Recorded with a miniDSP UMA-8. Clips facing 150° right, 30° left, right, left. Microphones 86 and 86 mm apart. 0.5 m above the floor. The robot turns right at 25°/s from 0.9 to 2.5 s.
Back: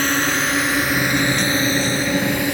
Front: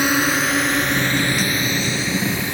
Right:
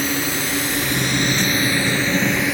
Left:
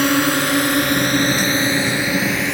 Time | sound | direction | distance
0.0 | a drone | 110° left | ?